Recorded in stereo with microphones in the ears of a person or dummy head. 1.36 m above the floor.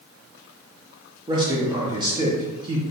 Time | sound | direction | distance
1.3 | a man speaking | 15° right (ahead or behind) | 0.8 m